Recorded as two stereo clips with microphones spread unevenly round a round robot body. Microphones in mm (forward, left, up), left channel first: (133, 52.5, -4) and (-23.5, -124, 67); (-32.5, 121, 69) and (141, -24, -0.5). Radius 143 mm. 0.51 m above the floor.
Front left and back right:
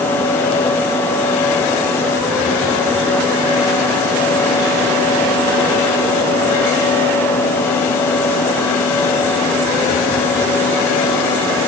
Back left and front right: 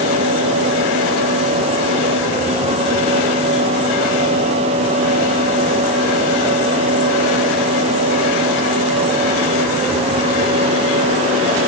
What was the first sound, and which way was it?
Only background noise.